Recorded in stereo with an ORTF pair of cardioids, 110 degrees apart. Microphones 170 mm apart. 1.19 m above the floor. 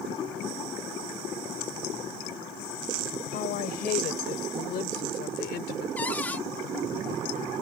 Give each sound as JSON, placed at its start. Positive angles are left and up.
{"t": 3.3, "sound": "a woman speaking", "azimuth_deg": 65}
{"t": 6.0, "sound": "a cupboard door", "azimuth_deg": 10}